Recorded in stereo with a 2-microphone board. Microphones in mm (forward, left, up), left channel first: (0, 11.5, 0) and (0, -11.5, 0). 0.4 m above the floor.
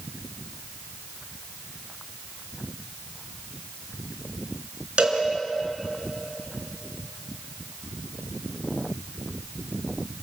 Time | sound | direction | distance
5.0 | a cowbell | 50° right (ahead or behind) | 4.5 m